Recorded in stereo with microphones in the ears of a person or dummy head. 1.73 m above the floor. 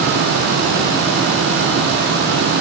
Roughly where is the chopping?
I don't hear chopping.